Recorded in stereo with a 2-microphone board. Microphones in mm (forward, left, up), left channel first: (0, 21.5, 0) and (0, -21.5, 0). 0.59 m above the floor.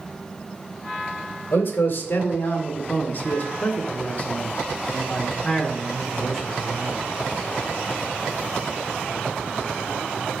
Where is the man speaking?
60° left (ahead or behind), 2.5 m; by 7.0 s centre (ahead or behind), 2.5 m.